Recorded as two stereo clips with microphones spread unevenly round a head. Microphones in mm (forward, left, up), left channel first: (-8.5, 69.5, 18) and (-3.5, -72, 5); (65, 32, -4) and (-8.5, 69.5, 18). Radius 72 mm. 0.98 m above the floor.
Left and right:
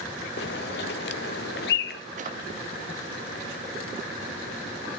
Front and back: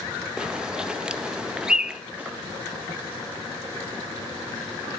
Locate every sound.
0.4 s a bird: 70° left, 0.5 m
2.2 s a drawer: 125° right, 0.8 m